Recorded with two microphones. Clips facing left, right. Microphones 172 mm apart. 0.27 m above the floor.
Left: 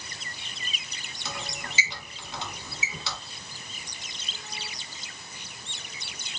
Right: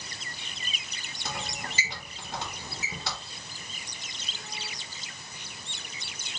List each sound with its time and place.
1.2 s a squeak: 50° right (ahead or behind), 1.8 m